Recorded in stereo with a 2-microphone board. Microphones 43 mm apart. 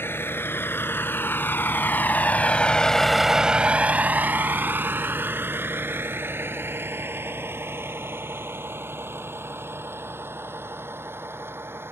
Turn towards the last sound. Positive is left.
turn(degrees=-70)  # may be behind; listen again after turning